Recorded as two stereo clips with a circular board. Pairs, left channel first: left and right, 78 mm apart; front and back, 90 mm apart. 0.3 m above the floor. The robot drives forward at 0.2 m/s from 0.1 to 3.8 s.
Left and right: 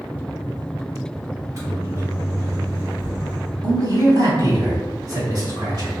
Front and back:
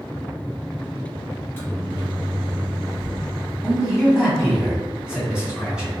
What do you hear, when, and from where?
1.4 s a microwave: 60° right, 1.7 m; by 3.5 s 80° right, 1.6 m
3.6 s a man speaking: 100° right, 1.7 m